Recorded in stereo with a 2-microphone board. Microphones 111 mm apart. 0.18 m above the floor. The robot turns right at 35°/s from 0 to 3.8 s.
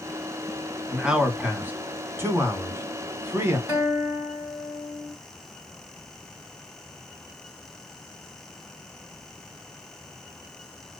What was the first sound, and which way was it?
A man speaking, 5° right (ahead or behind).